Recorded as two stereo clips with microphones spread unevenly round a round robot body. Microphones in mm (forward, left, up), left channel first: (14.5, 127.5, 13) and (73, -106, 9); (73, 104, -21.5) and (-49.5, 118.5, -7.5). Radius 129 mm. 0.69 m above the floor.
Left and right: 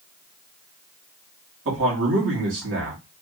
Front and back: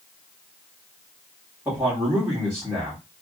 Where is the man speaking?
105° right, 2 m.